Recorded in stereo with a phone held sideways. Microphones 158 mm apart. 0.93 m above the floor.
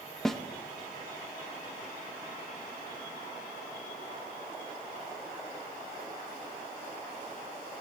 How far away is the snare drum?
About 0.8 m.